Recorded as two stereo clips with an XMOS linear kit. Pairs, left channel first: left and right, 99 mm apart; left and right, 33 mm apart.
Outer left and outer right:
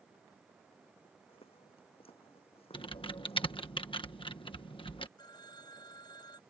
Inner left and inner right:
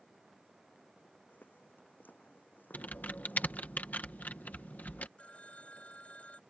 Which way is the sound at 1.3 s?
70° left (ahead or behind).